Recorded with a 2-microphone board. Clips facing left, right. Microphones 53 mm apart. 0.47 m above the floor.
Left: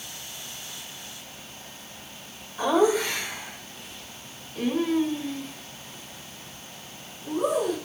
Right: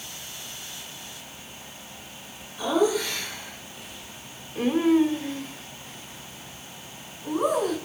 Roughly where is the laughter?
Left.